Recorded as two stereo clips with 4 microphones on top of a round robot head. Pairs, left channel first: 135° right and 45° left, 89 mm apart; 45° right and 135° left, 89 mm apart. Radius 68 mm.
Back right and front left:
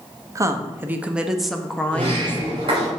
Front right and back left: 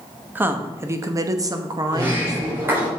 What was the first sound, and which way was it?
A woman speaking, 80° left.